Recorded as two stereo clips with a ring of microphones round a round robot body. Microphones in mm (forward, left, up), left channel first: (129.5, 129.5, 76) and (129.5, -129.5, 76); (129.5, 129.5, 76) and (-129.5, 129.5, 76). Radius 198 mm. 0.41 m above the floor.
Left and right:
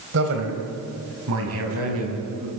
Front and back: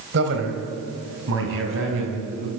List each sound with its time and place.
0.1 s a man speaking: 135° right, 3 m; by 2.5 s 130° right, 4.5 m